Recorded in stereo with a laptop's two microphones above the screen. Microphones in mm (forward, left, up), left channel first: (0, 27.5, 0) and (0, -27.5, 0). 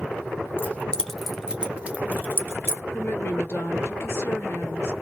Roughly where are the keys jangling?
Left.